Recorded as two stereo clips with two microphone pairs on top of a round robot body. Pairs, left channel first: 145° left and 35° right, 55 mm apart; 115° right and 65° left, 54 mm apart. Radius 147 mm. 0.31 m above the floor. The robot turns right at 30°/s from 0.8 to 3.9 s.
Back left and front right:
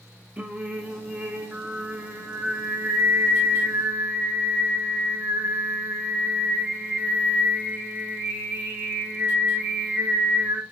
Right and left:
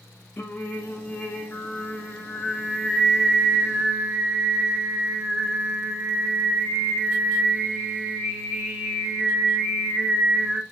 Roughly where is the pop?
No pop in this recording.